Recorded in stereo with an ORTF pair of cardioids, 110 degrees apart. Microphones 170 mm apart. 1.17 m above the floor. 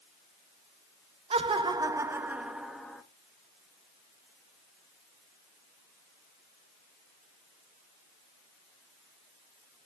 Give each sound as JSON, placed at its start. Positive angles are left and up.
{"t": 1.3, "sound": "laughter", "azimuth_deg": -35, "distance_m": 1.6}